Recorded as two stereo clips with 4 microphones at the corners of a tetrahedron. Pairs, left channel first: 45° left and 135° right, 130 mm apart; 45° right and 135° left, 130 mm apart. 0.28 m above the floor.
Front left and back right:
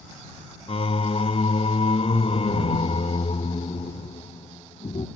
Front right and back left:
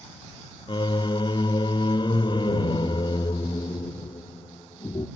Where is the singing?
5° left.